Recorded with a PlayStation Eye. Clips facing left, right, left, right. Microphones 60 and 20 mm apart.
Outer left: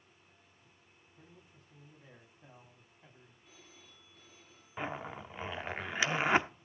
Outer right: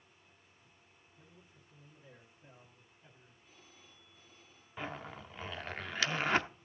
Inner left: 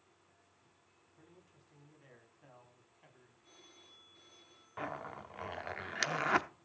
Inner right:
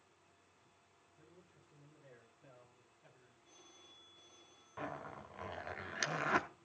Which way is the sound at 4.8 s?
20° left (ahead or behind).